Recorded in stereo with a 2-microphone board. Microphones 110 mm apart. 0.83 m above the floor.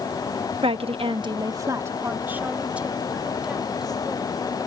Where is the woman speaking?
55° right (ahead or behind); by 4.4 s 5° right (ahead or behind).